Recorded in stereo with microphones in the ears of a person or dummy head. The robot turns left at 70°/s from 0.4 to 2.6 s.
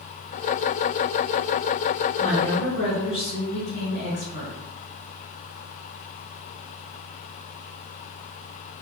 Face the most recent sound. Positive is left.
turn(degrees=65)  # may be behind; listen again after turning